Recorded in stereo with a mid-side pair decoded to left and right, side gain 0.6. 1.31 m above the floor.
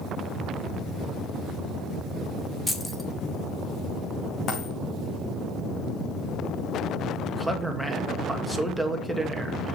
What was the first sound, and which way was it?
Keys jangling, 10° left.